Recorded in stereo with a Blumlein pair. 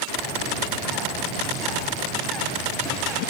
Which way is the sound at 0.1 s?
15° right.